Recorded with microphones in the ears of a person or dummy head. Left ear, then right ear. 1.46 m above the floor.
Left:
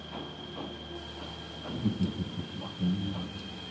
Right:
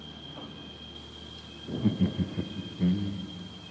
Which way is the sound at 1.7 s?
20° right (ahead or behind).